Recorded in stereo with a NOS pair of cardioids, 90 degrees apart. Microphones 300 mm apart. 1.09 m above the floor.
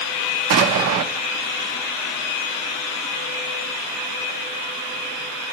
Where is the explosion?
55° right, 0.8 m.